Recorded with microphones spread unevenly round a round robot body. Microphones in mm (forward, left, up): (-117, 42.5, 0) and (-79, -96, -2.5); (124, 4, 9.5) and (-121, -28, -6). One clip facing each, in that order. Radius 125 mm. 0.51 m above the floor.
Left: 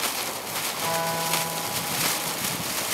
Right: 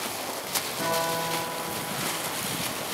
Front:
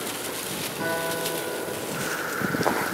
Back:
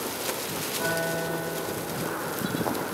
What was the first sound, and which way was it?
A guitar, 40° right.